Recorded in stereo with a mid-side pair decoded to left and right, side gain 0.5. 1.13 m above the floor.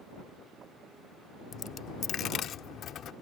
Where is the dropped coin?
60° left.